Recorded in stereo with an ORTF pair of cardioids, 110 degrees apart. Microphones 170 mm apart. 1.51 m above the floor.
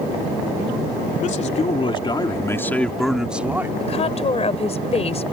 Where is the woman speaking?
40° left.